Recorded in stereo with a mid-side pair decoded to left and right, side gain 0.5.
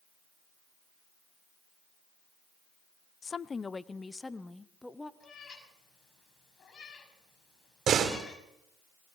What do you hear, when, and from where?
3.2 s a woman speaking: 35° left, 0.8 m; by 5.1 s 10° left, 1.7 m
5.2 s a cat meowing: 40° left, 6.5 m
7.9 s a door slam: 55° right, 3 m